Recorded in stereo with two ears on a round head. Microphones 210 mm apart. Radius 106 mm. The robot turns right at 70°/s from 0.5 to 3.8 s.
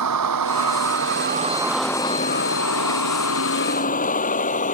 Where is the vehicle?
85° right; by 4.8 s 35° left (ahead or behind).